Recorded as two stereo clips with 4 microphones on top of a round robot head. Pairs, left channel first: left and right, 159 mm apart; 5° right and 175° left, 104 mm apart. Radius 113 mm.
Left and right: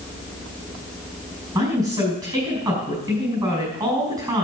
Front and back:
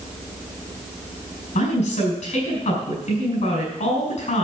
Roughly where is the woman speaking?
Ahead.